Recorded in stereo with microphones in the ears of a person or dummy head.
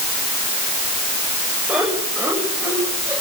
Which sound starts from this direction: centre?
Laughter, at 1.7 s.